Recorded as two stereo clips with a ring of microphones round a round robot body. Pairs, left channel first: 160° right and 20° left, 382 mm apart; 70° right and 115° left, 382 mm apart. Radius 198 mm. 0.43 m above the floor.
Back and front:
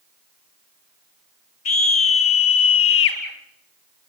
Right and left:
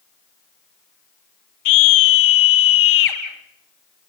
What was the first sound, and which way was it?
A scream, 110° right.